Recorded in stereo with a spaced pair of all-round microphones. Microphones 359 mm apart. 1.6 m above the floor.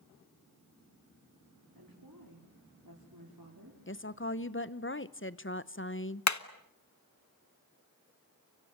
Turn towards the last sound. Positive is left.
turn(degrees=50)  # may be behind; listen again after turning